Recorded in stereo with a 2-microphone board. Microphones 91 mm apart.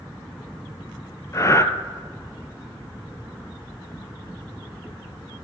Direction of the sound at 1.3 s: 35° left (ahead or behind).